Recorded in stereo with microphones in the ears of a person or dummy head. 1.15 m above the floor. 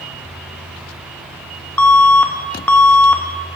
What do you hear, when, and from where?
1.8 s an alarm: 10° left (ahead or behind), 0.8 m